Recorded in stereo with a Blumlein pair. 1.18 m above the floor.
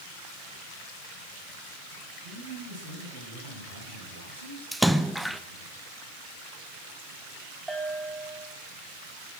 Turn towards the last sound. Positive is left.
turn(degrees=-10)